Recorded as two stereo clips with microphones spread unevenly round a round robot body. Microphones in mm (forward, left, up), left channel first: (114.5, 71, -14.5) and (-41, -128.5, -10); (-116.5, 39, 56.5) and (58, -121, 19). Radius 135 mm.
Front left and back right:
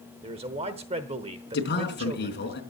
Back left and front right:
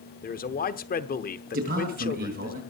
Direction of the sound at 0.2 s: 175° left.